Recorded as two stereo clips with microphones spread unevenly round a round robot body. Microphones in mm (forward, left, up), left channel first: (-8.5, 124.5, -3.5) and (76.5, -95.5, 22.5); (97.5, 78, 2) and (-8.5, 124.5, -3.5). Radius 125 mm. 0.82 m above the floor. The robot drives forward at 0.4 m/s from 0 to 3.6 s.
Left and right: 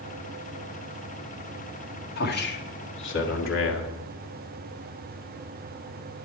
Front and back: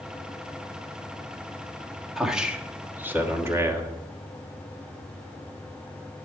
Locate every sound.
2.2 s a man speaking: 70° left, 1.7 m; by 3.9 s 95° left, 1.6 m